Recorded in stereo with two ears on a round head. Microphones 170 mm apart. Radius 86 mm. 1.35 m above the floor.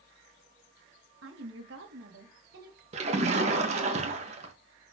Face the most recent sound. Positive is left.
turn(degrees=-35)  # may be behind; listen again after turning